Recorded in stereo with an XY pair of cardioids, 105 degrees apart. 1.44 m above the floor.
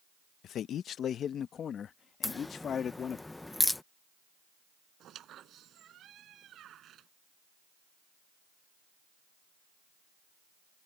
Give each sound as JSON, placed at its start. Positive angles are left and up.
{"t": 0.4, "sound": "a man speaking", "azimuth_deg": 70}
{"t": 2.2, "sound": "a crack", "azimuth_deg": 15}
{"t": 5.0, "sound": "a squeak", "azimuth_deg": -65}